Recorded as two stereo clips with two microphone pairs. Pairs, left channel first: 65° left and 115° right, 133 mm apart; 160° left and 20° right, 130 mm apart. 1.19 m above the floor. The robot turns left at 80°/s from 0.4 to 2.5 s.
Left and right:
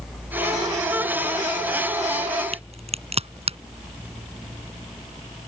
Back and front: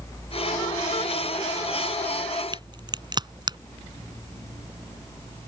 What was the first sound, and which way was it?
A crack, 75° right.